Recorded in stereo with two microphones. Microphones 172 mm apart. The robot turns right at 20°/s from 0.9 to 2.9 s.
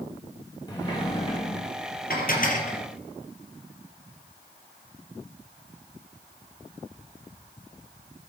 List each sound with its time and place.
0.7 s a sliding door: 25° left (ahead or behind), 4.5 m; by 1.6 s 35° left (ahead or behind), 4.5 m
2.1 s dishes clattering: 60° left (ahead or behind), 3.5 m; by 2.8 s 45° left (ahead or behind), 3.5 m